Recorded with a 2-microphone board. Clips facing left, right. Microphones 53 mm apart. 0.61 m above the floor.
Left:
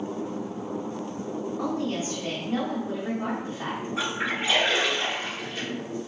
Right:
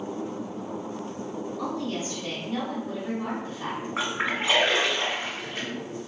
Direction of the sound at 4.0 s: 40° right (ahead or behind).